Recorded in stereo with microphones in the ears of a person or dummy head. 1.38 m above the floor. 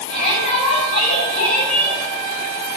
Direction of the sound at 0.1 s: 35° left (ahead or behind).